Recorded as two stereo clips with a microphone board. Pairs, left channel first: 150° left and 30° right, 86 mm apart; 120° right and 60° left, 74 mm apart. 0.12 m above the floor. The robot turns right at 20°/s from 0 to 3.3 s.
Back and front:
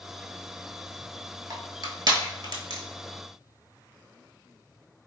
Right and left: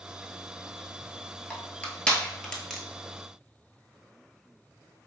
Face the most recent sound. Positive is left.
turn(degrees=-25)